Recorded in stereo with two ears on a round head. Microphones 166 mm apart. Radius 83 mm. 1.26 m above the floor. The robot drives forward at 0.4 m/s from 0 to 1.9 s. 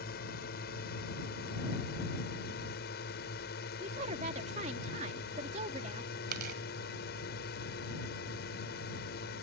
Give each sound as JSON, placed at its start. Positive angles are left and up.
{"t": 0.0, "sound": "a drone", "side_deg": 55}
{"t": 3.8, "sound": "a woman speaking", "side_deg": -35}
{"t": 6.3, "sound": "tearing paper", "side_deg": -55}